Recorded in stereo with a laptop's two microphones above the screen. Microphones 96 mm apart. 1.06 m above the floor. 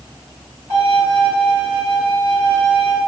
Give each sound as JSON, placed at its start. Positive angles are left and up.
{"t": 0.7, "sound": "a violin", "side_deg": -45, "distance_m": 1.3}